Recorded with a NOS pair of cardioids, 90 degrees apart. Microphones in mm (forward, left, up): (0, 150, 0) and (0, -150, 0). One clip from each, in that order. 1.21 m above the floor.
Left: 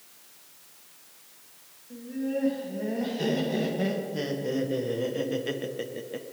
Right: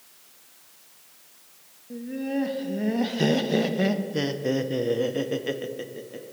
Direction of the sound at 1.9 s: 55° right.